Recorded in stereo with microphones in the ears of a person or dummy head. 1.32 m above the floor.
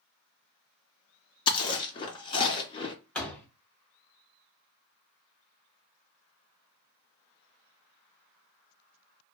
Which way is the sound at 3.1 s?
10° left (ahead or behind).